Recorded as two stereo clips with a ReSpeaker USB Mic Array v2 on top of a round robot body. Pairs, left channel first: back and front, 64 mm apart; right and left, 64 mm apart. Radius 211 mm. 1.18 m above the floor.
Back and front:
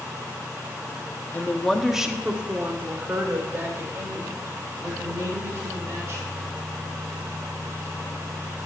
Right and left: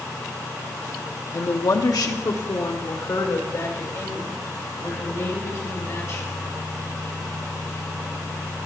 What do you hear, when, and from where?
1.3 s a woman speaking: 120° right, 1.0 m; by 6.3 s 45° right, 6 m